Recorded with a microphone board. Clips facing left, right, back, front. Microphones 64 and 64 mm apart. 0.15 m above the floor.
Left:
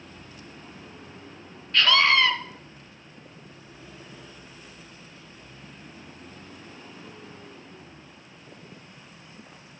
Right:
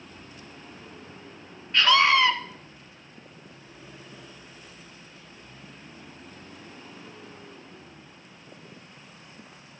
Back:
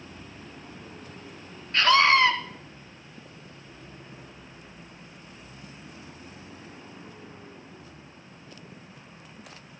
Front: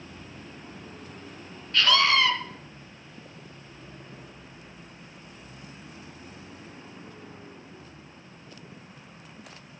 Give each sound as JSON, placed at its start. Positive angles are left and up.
{"t": 1.7, "sound": "a scream", "azimuth_deg": -155, "distance_m": 1.5}